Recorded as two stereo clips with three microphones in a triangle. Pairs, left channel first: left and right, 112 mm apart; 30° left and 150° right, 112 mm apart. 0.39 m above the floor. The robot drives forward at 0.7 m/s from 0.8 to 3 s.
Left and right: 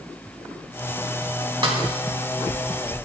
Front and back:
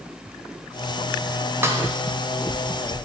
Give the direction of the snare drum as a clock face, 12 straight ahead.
3 o'clock.